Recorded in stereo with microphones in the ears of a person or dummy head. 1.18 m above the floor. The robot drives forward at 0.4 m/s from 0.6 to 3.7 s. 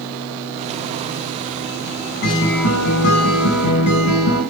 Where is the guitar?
65° left (ahead or behind), 4.5 m; by 4.4 s 60° left (ahead or behind), 5 m.